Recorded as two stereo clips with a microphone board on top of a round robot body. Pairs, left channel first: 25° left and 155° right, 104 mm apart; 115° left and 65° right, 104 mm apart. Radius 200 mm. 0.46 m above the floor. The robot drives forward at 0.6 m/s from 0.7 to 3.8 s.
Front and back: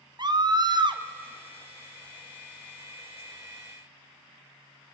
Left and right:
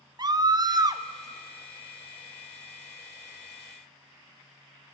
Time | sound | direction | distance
0.2 | a scream | 115° right | 1.6 m